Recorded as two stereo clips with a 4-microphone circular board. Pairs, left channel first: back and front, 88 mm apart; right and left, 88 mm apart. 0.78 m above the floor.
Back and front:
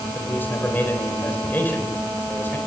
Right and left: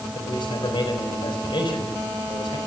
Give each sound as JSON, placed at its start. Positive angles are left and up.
{"t": 0.1, "sound": "a man speaking", "azimuth_deg": -115, "distance_m": 4.0}